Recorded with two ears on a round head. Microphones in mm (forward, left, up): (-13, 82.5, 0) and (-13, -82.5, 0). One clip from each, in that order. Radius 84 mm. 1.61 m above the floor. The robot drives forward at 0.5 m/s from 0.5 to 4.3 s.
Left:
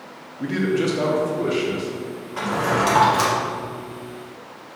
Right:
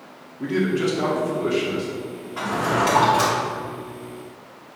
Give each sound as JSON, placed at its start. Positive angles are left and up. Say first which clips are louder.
{"t": 0.4, "sound": "a man speaking", "louder": "even", "side_deg": 10, "distance_m": 0.7}
{"t": 2.4, "sound": "a drawer", "louder": "left 1 dB", "side_deg": 15, "distance_m": 0.9}